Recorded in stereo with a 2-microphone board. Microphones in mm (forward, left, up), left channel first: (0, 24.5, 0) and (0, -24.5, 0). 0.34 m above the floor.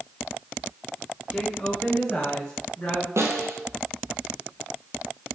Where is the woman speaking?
15° left (ahead or behind), 1.1 m; by 3.1 s 20° left (ahead or behind), 2 m.